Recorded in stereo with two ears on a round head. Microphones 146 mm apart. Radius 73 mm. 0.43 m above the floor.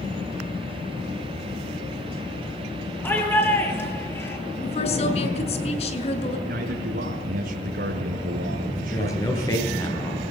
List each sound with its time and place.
3.0 s a shout: 15° left (ahead or behind), 9 m
4.6 s a woman speaking: 45° left (ahead or behind), 6 m
6.5 s a man speaking: 70° right (ahead or behind), 4.5 m
8.9 s a man speaking: 20° left (ahead or behind), 8 m